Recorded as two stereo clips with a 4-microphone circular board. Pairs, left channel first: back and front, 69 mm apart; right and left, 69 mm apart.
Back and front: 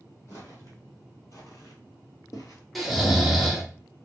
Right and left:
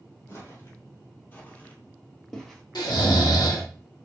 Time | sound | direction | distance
0.3 | footsteps | 130° right | 1.8 m
2.8 | snoring | 90° right | 0.8 m